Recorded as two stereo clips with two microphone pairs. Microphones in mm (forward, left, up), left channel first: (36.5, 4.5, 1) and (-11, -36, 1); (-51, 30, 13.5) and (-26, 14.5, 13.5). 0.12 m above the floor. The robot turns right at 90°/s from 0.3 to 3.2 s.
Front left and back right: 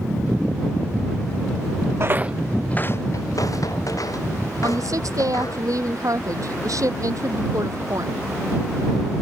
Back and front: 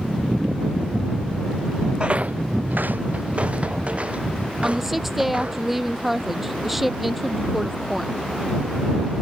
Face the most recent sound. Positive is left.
turn(degrees=-115)